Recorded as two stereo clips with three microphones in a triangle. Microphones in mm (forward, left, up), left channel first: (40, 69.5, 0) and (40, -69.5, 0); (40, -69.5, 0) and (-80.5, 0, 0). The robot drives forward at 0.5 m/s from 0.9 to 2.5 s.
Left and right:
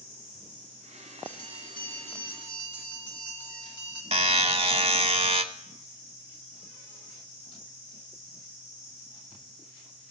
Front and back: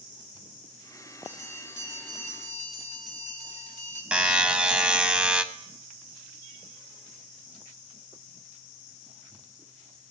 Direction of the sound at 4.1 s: 125° right.